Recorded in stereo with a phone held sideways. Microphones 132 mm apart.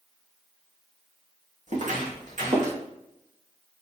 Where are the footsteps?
65° right (ahead or behind), 2.5 m; by 2.8 s 70° right (ahead or behind), 3 m.